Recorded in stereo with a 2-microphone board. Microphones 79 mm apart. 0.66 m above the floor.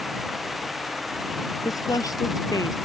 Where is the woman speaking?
50° left (ahead or behind).